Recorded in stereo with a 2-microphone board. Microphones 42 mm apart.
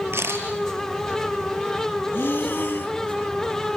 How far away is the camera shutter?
About 5.5 m.